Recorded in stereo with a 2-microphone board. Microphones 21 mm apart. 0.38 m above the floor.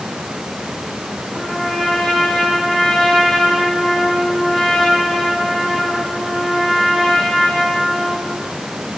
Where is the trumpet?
35° left (ahead or behind), 6 m.